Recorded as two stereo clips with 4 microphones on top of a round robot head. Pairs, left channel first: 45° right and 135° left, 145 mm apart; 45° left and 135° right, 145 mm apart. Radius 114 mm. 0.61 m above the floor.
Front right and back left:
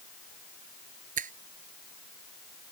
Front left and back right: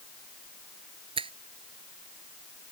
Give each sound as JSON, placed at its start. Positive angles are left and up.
{"t": 1.2, "sound": "a finger snap", "azimuth_deg": 170}